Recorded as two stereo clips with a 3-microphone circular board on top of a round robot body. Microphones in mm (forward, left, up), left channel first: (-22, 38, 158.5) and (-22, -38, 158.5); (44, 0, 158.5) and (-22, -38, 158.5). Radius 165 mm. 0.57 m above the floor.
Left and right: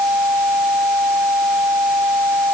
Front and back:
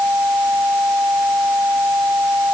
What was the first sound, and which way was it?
Only background noise.